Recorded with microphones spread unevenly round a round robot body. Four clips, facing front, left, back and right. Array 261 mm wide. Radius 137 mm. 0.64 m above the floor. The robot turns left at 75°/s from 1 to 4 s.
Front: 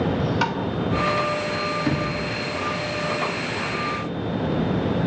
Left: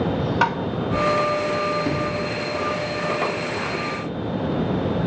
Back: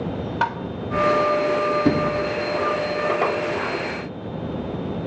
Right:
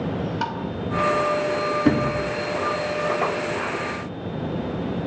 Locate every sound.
0.4 s tapping: 120° left, 1.8 m
1.9 s a sliding door: 160° right, 7 m; by 2.2 s 170° left, 7 m